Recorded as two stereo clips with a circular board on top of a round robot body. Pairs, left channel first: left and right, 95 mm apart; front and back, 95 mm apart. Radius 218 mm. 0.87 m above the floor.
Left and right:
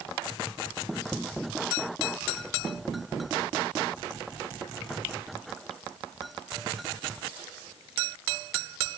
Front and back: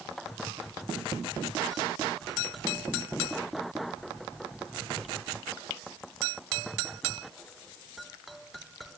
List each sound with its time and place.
Only background noise.